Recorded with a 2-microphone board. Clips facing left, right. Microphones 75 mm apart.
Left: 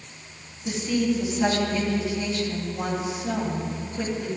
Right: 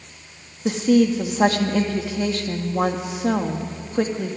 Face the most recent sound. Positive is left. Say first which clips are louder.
# right 7 dB
turn(degrees=-75)  # may be behind; listen again after turning